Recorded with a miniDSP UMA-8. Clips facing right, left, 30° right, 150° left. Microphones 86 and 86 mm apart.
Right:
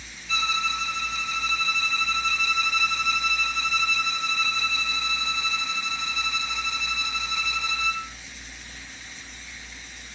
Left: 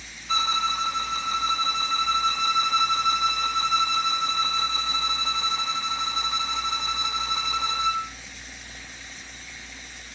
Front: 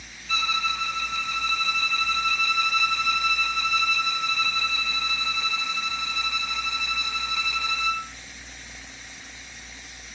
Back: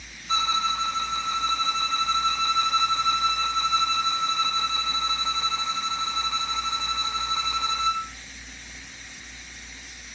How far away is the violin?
About 0.7 m.